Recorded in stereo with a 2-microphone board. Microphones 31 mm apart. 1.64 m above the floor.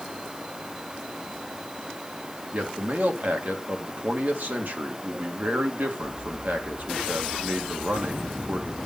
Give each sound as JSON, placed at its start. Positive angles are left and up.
{"t": 2.5, "sound": "a man speaking", "side_deg": -70, "distance_m": 1.9}